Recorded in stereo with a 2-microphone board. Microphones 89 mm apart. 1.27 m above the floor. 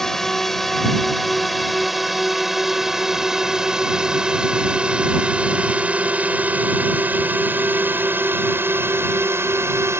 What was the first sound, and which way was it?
A drone, 5° left (ahead or behind).